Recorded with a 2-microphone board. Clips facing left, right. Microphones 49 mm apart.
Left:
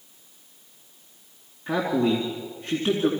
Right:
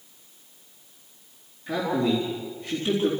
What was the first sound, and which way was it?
A man speaking, 40° left (ahead or behind).